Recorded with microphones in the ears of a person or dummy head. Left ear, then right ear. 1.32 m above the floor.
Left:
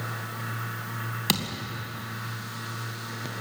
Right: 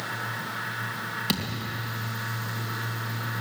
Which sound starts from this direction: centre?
A thud, at 1.3 s.